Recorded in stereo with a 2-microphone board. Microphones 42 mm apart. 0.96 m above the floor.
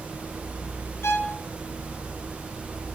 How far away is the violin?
About 1.5 m.